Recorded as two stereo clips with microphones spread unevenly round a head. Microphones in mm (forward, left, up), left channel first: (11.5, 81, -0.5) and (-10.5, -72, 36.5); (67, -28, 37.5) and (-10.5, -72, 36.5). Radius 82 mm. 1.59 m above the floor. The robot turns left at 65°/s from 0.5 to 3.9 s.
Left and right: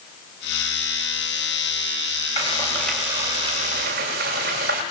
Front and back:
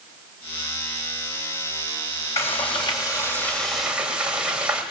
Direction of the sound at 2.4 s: 30° left.